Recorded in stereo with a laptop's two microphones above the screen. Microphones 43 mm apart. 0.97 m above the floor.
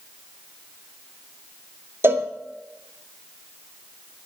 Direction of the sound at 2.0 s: 75° right (ahead or behind).